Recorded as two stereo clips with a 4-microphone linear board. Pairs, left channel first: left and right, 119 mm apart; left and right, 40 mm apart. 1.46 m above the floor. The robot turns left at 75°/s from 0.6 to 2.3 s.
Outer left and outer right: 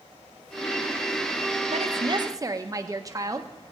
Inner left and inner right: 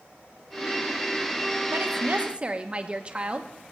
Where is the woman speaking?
105° right, 1.0 m; by 3.7 s 150° right, 1.0 m.